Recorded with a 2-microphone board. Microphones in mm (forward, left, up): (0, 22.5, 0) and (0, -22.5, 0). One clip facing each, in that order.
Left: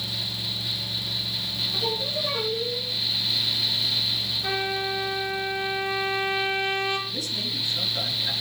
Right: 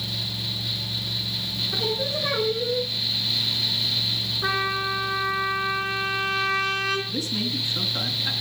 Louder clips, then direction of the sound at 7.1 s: Right 3 dB; 35° right (ahead or behind).